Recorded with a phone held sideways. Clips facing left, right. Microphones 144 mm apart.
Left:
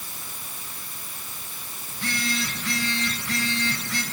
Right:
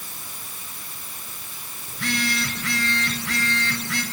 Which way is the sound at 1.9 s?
80° right.